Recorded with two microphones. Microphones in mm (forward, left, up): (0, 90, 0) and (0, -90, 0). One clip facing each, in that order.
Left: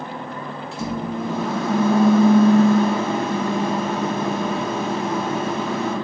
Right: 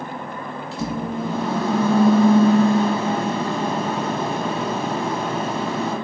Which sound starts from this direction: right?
A microwave, at 0.7 s.